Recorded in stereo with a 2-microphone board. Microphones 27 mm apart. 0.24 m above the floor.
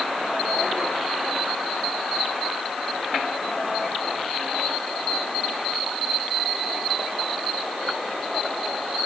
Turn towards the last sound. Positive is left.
No sound to turn to.